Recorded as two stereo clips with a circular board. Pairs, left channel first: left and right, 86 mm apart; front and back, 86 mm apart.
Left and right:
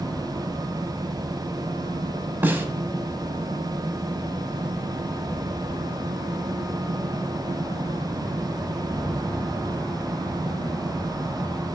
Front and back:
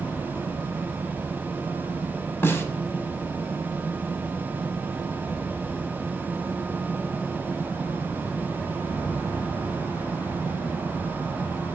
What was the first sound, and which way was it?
A snare drum, 40° right.